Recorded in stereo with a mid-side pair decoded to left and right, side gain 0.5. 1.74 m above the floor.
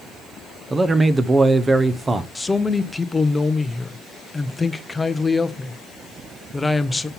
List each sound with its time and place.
0.7 s a man speaking: 25° right, 0.9 m
2.4 s a man speaking: 15° left, 0.8 m